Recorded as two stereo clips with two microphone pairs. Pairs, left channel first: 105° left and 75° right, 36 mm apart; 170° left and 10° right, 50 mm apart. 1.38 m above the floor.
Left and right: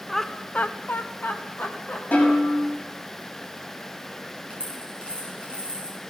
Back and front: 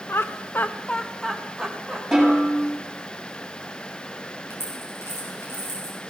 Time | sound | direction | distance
0.1 | laughter | 165° right | 0.6 m
2.1 | a snare drum | 80° left | 6 m
4.5 | a dropped coin | 165° left | 4 m